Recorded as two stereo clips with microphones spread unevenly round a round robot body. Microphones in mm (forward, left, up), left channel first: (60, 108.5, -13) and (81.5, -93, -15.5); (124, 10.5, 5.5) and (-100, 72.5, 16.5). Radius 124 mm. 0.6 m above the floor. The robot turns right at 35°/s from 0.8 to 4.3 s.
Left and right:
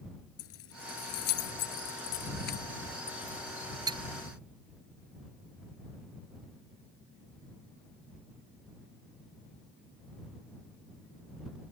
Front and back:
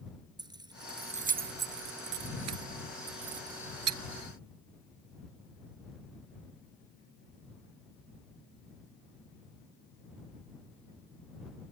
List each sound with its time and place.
0.4 s keys jangling: 90° left; by 4.0 s 155° right